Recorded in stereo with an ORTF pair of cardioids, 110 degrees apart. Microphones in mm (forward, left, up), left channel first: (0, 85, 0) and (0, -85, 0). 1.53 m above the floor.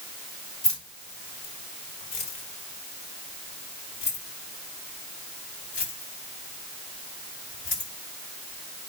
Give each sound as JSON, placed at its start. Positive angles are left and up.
{"t": 0.6, "sound": "keys jangling", "azimuth_deg": 40, "distance_m": 3.5}